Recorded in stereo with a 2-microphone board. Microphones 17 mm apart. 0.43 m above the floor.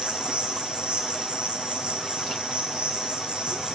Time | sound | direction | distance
0.0 | an insect | 80° right | 1.7 m